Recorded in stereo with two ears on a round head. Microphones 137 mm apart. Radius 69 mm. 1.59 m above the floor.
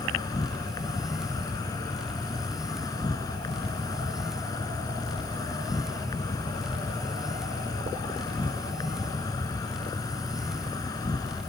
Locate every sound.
0.0 s an insect: 25° left (ahead or behind)